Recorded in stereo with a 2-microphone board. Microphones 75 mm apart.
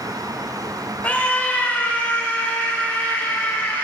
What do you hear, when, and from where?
1.0 s a scream: 20° left (ahead or behind), 1.5 m